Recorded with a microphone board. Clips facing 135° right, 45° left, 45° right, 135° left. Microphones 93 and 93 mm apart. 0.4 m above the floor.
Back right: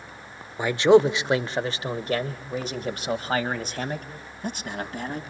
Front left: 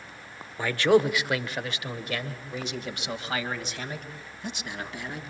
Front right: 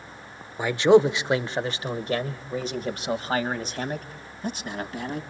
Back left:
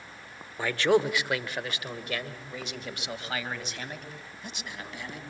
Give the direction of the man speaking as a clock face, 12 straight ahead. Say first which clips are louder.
Back right 5 dB, front right 7 dB; 3 o'clock.